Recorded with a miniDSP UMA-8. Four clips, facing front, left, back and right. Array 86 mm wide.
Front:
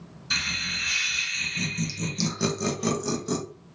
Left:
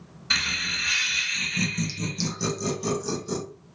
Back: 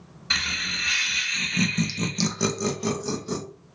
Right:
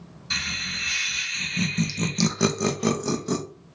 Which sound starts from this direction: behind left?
Laughter, at 0.3 s.